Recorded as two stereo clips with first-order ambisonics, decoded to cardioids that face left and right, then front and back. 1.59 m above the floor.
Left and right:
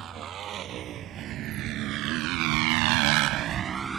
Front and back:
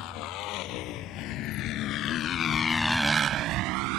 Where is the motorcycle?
35° right; by 4.0 s 170° right.